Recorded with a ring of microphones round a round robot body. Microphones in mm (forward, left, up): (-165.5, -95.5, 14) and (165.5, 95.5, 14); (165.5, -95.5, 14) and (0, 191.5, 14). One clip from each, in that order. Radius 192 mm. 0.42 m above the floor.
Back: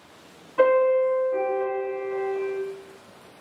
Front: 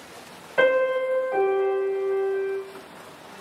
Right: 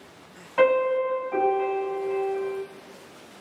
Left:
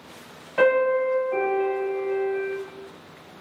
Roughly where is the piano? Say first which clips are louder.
Back 2 dB, left 1 dB; ahead left.